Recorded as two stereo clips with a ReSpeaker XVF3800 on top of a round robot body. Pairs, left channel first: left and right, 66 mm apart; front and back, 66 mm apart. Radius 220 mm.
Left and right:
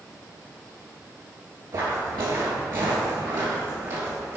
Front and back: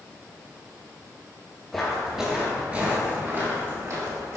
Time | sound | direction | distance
1.7 | footsteps | 85° right | 2.5 m